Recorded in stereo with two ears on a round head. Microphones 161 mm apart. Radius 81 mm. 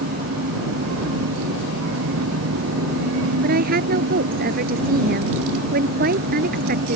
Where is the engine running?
85° right.